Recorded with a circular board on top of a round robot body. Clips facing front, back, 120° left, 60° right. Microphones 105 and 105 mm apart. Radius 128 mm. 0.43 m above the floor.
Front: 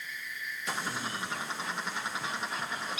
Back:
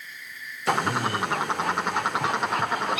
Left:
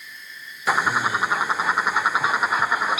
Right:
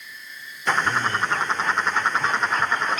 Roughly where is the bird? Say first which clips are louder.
Back 12 dB, left 1 dB; behind.